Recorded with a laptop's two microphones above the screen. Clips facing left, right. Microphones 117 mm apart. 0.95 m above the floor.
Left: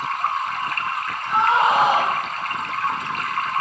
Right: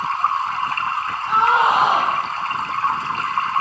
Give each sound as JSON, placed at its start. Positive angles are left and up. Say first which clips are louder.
{"t": 0.0, "sound": "running water", "louder": "right 3 dB", "side_deg": -30, "distance_m": 1.2}
{"t": 1.3, "sound": "a scream", "louder": "right 1 dB", "side_deg": -85, "distance_m": 6.5}